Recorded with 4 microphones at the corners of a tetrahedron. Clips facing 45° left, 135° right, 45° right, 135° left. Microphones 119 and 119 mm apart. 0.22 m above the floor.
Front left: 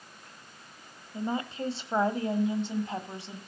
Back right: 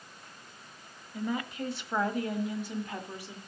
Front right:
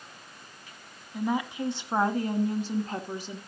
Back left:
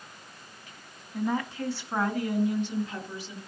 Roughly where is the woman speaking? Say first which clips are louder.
Front left 1 dB, even; ahead left.